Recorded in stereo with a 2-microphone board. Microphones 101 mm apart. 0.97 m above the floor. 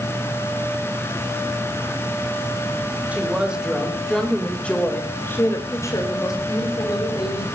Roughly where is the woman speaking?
Centre.